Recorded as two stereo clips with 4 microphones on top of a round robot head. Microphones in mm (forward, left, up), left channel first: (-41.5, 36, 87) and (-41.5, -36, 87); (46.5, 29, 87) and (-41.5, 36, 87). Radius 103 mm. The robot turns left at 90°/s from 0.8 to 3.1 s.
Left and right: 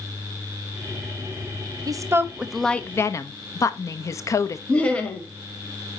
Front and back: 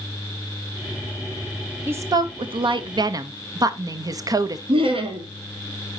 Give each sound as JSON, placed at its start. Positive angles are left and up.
{"t": 1.9, "sound": "a woman speaking", "azimuth_deg": -115, "distance_m": 0.9}
{"t": 4.7, "sound": "laughter", "azimuth_deg": 165, "distance_m": 2.5}